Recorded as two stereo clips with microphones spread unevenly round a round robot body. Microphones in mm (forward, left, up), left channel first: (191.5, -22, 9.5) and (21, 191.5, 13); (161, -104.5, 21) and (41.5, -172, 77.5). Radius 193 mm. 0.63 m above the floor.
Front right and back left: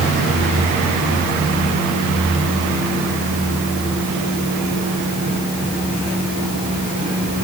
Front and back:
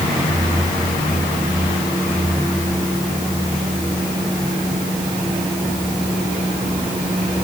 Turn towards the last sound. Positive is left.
No sound to turn to.